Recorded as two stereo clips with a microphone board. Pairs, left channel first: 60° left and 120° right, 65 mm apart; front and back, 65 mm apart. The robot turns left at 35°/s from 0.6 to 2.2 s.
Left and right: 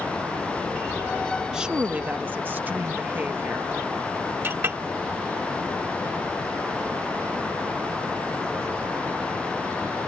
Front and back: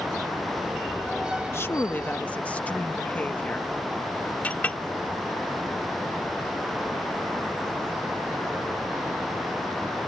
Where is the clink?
70° right.